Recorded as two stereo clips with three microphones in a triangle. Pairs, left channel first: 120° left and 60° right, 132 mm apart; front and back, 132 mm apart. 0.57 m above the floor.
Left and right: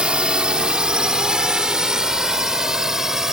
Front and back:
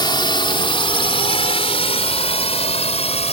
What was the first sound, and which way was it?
A drone, 20° left.